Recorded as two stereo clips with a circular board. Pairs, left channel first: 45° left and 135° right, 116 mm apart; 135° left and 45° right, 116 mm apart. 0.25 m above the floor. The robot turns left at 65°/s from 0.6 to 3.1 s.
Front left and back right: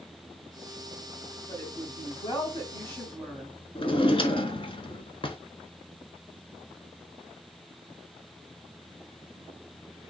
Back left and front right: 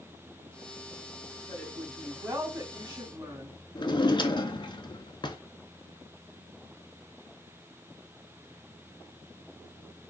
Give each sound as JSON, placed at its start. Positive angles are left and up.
{"t": 1.5, "sound": "a woman speaking", "azimuth_deg": 75, "distance_m": 1.6}
{"t": 3.8, "sound": "a drawer", "azimuth_deg": 85, "distance_m": 0.7}